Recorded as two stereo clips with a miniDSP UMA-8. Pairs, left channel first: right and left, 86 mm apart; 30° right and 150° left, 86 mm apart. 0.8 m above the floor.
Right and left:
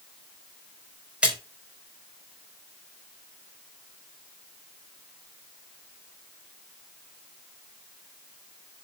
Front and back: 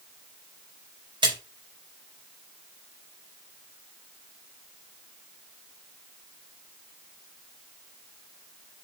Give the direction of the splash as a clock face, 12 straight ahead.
6 o'clock.